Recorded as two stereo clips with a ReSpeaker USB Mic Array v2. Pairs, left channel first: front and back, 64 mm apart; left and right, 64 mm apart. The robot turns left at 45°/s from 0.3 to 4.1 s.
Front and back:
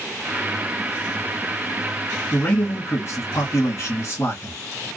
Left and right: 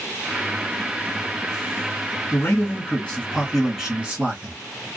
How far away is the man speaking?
About 1.4 m.